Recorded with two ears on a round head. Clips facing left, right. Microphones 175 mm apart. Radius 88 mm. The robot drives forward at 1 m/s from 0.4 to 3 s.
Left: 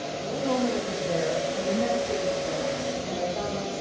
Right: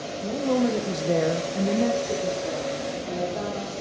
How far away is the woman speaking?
About 1.1 m.